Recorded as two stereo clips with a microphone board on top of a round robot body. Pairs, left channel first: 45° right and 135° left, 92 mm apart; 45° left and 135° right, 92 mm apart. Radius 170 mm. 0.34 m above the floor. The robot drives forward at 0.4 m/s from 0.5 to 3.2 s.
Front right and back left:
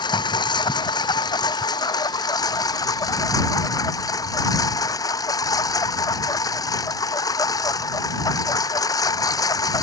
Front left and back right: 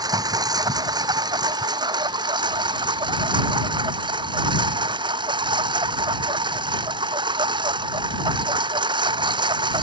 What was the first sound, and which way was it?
A lawn mower, 85° right.